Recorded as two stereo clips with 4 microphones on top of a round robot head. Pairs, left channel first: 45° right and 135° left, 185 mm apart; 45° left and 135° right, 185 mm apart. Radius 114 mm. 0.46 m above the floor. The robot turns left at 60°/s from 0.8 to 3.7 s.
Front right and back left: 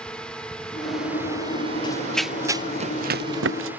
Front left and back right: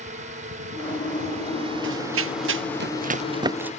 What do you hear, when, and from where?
0.0 s a drone: 125° right; by 3.8 s 60° left
1.8 s running footsteps: 110° right; by 3.7 s 140° left